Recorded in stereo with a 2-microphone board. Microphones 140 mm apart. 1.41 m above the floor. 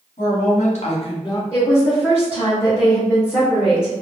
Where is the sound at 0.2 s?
75° left (ahead or behind), 1.2 m; by 1.4 s 25° left (ahead or behind), 0.8 m.